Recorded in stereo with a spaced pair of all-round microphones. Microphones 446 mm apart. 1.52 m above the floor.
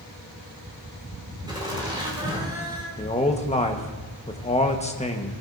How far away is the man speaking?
About 1.3 m.